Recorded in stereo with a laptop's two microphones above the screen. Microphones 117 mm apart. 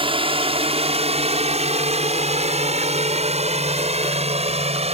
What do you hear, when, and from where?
0.0 s a drone: 50° right (ahead or behind); by 5.0 s 60° right (ahead or behind)